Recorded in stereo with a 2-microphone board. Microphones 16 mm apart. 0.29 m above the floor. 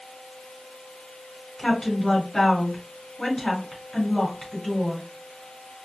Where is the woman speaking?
45° left (ahead or behind), 2.5 m.